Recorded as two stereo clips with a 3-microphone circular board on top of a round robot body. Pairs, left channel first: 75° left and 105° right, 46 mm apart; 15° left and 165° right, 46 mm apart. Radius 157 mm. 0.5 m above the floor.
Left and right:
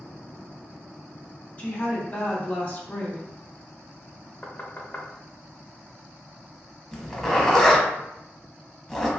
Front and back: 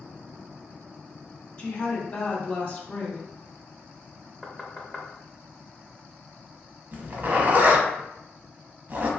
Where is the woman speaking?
30° left, 1.5 m.